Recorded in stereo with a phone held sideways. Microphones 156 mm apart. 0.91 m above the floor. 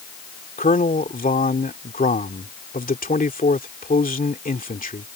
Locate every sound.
0.6 s a man speaking: 65° left (ahead or behind)